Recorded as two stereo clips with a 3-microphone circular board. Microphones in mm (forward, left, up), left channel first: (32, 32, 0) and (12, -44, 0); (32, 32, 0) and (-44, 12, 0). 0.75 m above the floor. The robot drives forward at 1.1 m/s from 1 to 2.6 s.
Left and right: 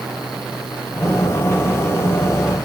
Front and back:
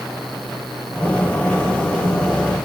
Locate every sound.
Only background noise.